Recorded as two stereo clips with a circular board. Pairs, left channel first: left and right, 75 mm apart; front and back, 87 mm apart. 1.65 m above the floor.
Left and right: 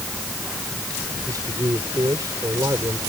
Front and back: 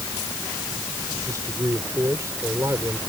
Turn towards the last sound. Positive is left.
turn(degrees=-125)